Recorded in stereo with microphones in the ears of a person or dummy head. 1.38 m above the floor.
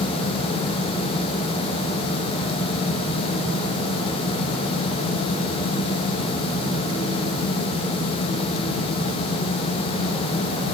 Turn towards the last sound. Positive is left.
No sound to turn to.